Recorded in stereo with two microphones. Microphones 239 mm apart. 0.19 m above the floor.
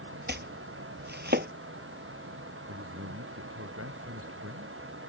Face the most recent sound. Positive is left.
turn(degrees=-65)  # may be behind; listen again after turning